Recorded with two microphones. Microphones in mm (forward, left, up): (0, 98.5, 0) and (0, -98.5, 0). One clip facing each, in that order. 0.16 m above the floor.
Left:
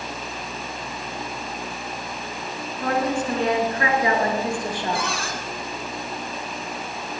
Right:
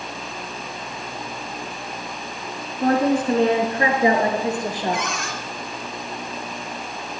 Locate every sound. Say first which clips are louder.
2.8 s a woman speaking: right 5 dB; 40° right (ahead or behind), 1.5 m; by 5.1 s 20° right (ahead or behind), 3 m
4.9 s a cupboard door: even; 35° left (ahead or behind), 2.5 m